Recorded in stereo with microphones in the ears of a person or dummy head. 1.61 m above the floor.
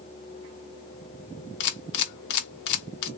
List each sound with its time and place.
1.6 s a camera shutter: 55° left (ahead or behind), 0.5 m